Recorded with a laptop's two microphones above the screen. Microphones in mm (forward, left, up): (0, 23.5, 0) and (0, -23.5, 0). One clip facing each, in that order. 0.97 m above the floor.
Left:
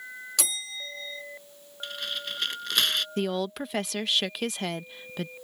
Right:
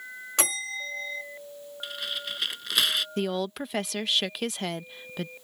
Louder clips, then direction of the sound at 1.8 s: Even; 5° right (ahead or behind).